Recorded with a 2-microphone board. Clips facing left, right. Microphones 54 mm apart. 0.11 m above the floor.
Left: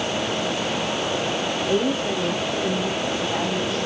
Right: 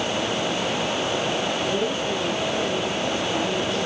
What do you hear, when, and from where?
1.7 s a woman speaking: 60° left (ahead or behind), 6.5 m; by 3.9 s 55° left (ahead or behind), 8 m